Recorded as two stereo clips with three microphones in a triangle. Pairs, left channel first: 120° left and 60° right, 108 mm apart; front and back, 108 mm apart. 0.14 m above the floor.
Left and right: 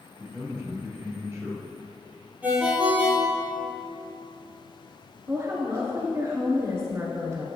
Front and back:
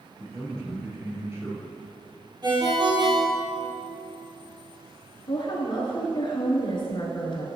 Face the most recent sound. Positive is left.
turn(degrees=-10)